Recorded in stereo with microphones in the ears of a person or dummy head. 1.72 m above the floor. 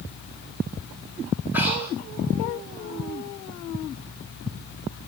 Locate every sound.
1.5 s breathing: 10° right (ahead or behind), 8.5 m